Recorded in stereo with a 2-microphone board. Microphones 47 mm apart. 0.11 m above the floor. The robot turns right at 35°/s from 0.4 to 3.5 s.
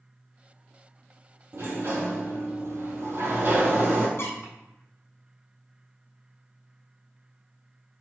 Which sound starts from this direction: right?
A sliding door, at 1.5 s.